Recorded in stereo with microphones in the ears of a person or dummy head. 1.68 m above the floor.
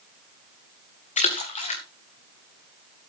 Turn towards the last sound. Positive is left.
turn(degrees=40)  # may be behind; listen again after turning